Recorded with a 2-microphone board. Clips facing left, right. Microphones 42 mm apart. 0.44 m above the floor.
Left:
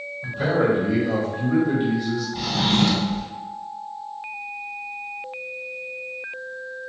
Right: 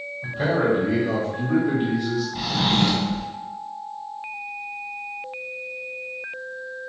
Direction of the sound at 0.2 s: 35° right (ahead or behind).